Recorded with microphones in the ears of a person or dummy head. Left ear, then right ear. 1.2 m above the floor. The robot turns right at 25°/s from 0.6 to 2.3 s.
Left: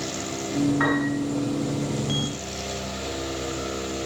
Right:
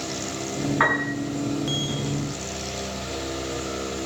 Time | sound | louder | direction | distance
0.8 | a piano | right 6 dB | 25° right (ahead or behind) | 6.5 m